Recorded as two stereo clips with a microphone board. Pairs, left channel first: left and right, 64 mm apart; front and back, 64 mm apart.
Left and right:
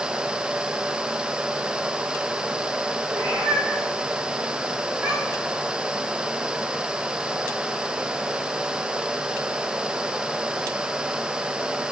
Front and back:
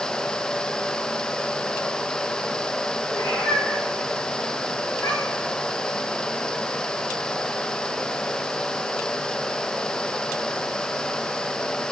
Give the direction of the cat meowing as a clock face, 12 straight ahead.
1 o'clock.